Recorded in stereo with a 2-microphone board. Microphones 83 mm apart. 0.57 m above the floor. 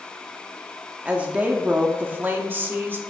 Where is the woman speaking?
15° right (ahead or behind), 1.0 m; by 3.0 s 25° right (ahead or behind), 1.3 m.